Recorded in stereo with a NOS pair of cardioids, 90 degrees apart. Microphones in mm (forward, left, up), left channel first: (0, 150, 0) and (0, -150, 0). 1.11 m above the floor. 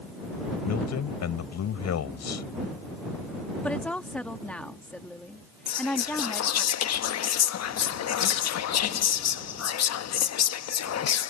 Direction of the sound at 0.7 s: 60° left.